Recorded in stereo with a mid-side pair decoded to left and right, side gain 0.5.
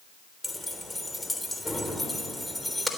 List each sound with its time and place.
0.4 s keys jangling: 5° left, 3.5 m